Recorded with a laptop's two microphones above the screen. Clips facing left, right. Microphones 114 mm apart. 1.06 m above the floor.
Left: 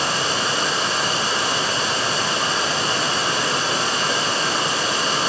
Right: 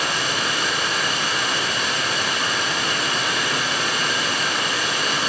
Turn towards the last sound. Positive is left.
turn(degrees=30)  # may be behind; listen again after turning